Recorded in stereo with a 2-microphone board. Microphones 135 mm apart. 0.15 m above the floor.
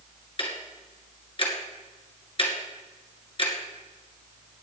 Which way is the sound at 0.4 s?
40° left (ahead or behind).